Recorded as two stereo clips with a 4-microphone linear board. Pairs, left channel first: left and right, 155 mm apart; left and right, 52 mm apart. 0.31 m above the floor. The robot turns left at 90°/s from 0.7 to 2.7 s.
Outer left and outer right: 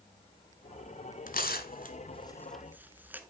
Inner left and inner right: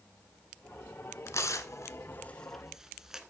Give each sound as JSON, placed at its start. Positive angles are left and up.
{"t": 1.3, "sound": "tearing paper", "side_deg": 60, "distance_m": 1.0}